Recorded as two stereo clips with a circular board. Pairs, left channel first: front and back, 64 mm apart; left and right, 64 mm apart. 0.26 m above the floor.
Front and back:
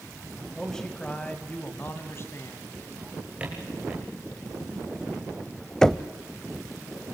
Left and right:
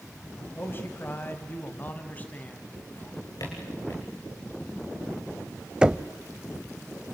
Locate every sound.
0.6 s a man speaking: 80° left, 1.8 m; by 2.8 s 25° left, 2.5 m
3.0 s a drawer: 110° left, 6.5 m
5.8 s knocking: 60° right, 0.6 m